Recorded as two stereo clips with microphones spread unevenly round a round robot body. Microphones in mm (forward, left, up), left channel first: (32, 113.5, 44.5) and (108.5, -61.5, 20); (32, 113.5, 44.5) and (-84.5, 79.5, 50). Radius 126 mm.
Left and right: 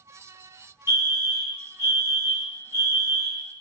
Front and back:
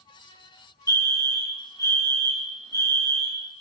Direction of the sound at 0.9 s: 50° left.